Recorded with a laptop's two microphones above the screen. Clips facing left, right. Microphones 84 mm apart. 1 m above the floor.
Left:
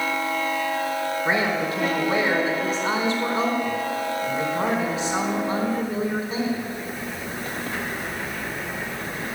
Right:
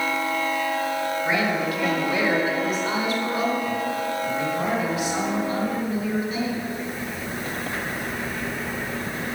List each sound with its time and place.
1.2 s a woman speaking: 30° left (ahead or behind), 4.5 m